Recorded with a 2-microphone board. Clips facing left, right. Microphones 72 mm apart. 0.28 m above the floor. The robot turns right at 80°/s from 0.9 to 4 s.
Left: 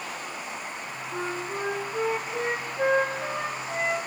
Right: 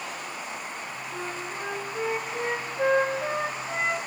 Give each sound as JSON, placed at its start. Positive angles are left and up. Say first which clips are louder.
{"t": 1.1, "sound": "a flute", "louder": "left 5 dB", "azimuth_deg": 15, "distance_m": 3.0}